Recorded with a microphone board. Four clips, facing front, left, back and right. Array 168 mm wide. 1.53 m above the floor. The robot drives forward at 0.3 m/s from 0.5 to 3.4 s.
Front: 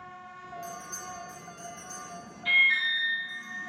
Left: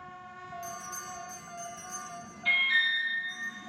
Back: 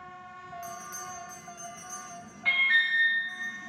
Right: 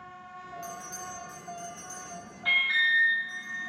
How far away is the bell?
About 1.0 m.